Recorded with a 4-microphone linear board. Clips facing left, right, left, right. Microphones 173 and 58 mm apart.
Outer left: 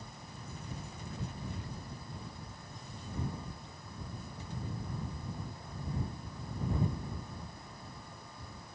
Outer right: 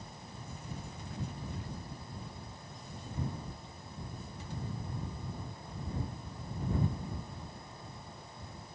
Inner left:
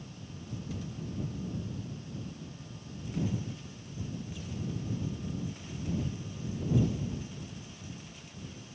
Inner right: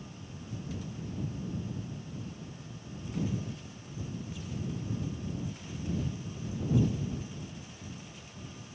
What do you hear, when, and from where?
Only background noise.